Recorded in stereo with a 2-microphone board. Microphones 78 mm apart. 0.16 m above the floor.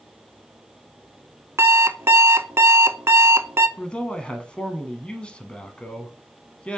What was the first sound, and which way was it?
An alarm clock, 35° right (ahead or behind).